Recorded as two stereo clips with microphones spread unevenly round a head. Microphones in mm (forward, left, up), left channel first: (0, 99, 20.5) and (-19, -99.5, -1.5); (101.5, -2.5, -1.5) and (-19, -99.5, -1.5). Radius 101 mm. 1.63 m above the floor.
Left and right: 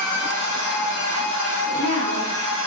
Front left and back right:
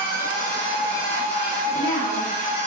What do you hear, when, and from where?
0.0 s a machine running: 65° left, 1.2 m
1.7 s a woman speaking: 50° left, 2.0 m